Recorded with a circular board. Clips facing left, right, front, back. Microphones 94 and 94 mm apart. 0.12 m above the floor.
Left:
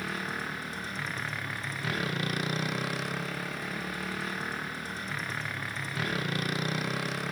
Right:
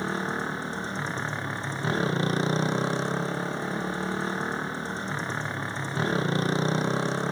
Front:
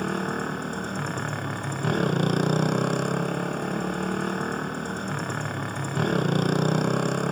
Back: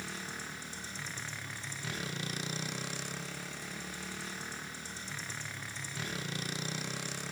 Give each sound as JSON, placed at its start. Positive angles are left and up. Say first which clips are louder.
{"t": 0.0, "sound": "a motorcycle", "louder": "right 6 dB, front 16 dB", "azimuth_deg": -30}